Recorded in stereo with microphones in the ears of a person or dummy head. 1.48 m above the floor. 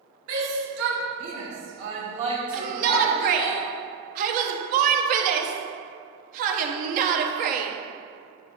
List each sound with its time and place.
0.3 s a shout: 85° right, 3 m; by 3.5 s 10° left (ahead or behind), 2 m
2.5 s a shout: 45° right (ahead or behind), 0.9 m